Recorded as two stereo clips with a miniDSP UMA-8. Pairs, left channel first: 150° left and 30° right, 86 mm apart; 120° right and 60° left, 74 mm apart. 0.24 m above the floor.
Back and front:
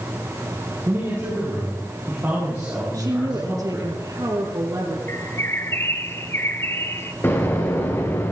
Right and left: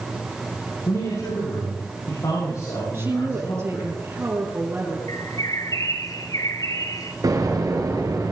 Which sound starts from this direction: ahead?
A woman speaking, at 2.9 s.